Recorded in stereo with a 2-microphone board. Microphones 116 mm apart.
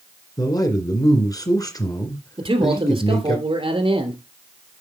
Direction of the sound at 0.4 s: 35° left (ahead or behind).